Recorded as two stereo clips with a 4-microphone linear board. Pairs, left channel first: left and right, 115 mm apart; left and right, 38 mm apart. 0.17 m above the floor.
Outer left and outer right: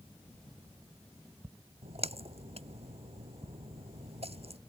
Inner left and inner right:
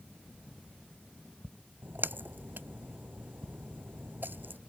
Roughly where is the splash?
Right.